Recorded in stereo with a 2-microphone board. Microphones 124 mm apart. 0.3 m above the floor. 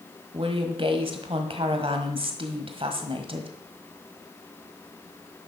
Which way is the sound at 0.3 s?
45° right (ahead or behind).